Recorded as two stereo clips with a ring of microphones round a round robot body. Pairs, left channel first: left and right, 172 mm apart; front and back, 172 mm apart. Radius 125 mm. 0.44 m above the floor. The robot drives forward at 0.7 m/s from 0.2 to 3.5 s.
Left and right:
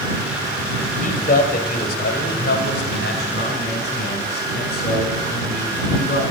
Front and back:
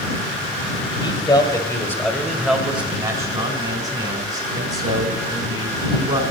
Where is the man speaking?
55° left, 1.6 m; by 6.2 s 130° left, 1.7 m.